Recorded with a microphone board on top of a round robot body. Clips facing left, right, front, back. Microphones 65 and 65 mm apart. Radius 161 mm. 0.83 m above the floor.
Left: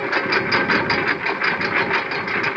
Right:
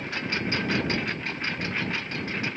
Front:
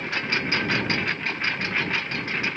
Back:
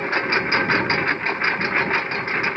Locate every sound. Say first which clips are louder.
0.0 s a lawn mower: left 10 dB, back 6 dB; 125° left